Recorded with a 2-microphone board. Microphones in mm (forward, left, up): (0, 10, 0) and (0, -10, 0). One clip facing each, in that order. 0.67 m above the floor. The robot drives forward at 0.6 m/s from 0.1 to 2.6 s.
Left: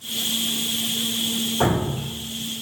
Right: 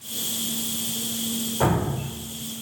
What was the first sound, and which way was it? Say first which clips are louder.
Dripping: right 1 dB; 20° left (ahead or behind).